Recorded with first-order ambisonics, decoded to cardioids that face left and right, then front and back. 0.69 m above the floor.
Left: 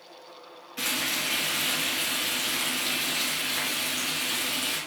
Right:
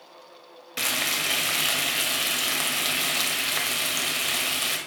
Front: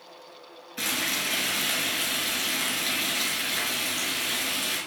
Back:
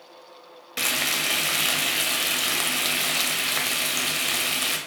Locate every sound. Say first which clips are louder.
0.8 s frying: right 3 dB, back 4 dB; 140° right, 1.5 m